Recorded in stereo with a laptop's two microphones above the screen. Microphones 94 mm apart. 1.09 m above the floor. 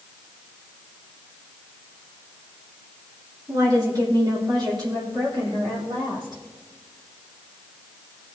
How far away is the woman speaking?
About 2.5 m.